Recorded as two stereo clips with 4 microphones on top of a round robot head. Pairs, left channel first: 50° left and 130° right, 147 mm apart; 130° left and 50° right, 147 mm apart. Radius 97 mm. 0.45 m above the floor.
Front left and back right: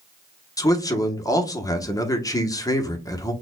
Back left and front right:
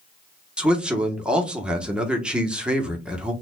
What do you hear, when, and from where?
0.6 s a man speaking: 25° left, 1.0 m